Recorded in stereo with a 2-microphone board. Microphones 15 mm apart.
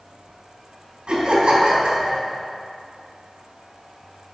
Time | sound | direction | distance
1.1 | laughter | 65° right (ahead or behind) | 4.5 m